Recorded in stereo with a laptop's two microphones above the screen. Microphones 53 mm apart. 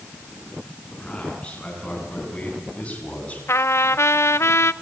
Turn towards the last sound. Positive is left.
turn(degrees=60)  # may be behind; listen again after turning